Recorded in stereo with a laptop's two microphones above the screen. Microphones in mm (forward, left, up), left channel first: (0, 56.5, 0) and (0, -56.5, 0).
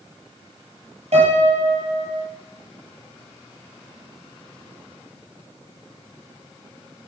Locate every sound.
1.1 s a piano: 75° right (ahead or behind), 3.5 m